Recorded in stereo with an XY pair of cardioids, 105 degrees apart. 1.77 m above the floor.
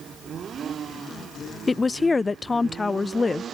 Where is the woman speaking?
25° left.